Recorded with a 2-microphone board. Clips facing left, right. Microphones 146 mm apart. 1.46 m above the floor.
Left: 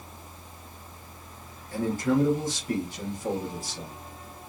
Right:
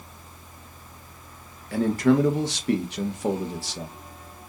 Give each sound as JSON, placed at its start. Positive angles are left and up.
{"t": 1.7, "sound": "a man speaking", "side_deg": -70, "distance_m": 1.0}